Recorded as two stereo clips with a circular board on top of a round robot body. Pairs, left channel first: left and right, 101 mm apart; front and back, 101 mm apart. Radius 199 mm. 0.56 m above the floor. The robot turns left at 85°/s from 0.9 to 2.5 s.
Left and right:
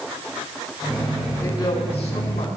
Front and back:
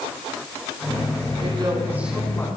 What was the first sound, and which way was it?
A woman speaking, 155° left.